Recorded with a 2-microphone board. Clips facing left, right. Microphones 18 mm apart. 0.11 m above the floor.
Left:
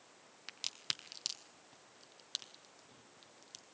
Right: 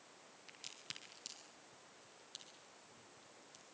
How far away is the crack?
About 1.6 m.